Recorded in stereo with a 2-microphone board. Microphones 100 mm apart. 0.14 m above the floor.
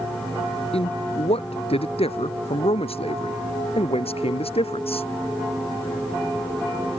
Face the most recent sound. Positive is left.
turn(degrees=80)